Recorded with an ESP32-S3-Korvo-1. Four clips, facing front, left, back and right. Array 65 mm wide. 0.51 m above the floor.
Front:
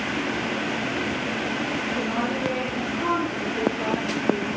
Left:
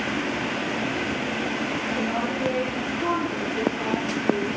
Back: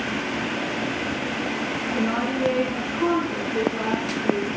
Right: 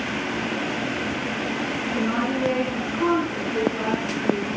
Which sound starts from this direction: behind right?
A woman speaking, at 1.9 s.